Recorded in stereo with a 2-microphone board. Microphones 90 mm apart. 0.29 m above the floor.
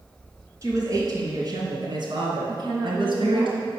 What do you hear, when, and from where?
0.6 s a woman speaking: 35° right (ahead or behind), 3 m; by 3.5 s 70° right (ahead or behind), 3 m
2.5 s a woman speaking: 60° right (ahead or behind), 2.5 m